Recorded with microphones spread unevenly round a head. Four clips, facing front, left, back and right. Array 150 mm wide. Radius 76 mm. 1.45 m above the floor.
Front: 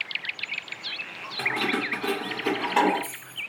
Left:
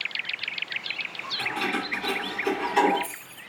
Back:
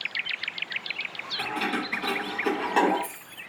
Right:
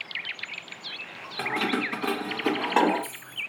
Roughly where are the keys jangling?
Right.